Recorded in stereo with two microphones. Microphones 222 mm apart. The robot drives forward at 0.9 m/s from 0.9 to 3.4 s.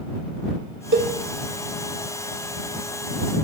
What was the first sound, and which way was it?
A cowbell, 65° right (ahead or behind).